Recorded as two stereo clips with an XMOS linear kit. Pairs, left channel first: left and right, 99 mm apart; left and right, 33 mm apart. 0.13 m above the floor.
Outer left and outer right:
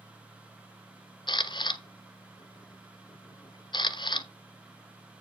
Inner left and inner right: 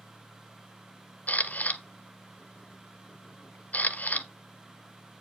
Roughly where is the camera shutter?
Left.